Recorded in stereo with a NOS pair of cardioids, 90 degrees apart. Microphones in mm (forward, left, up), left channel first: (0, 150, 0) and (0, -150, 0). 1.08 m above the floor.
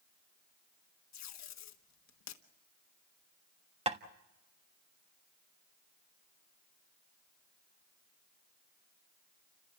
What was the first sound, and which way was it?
Tape being pulled, 65° left.